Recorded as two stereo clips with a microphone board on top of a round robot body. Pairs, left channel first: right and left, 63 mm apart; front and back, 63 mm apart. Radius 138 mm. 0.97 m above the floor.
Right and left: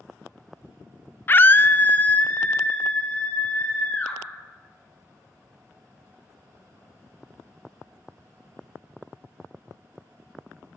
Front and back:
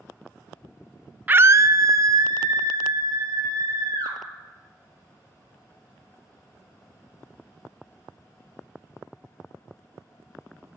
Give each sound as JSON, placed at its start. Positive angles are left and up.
{"t": 1.3, "sound": "a scream", "azimuth_deg": -130, "distance_m": 0.7}